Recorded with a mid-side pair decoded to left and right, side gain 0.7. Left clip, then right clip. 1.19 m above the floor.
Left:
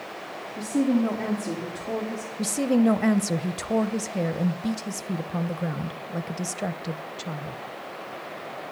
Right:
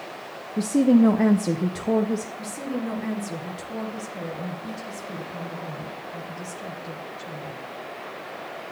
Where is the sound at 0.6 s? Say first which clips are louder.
Right 5 dB; 40° right, 0.8 m.